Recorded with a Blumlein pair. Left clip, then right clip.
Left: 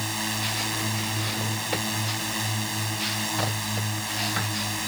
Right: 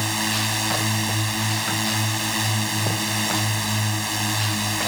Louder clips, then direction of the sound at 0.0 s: Right 5 dB; 15° right.